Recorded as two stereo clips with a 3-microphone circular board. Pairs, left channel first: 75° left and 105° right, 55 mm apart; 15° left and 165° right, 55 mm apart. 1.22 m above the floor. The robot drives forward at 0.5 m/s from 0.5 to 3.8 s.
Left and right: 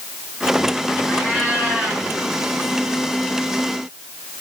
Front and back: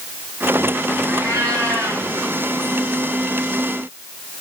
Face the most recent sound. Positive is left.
turn(degrees=-175)